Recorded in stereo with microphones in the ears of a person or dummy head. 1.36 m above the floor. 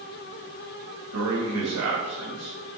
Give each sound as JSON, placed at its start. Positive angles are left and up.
{"t": 1.1, "sound": "a man speaking", "side_deg": -70, "distance_m": 1.9}